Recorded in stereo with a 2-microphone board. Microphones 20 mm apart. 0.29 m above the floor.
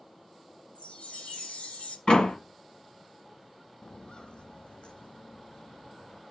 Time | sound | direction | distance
0.8 | a chime | 75° left (ahead or behind) | 1.6 m
2.1 | a door slam | 45° left (ahead or behind) | 1.5 m
3.8 | footsteps | 45° left (ahead or behind) | 0.6 m